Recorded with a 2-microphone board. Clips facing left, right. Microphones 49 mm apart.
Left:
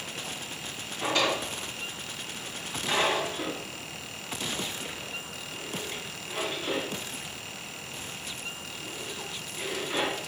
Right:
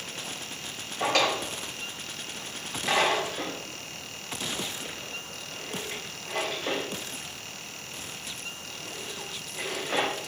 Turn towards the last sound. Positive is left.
turn(degrees=-75)  # may be behind; listen again after turning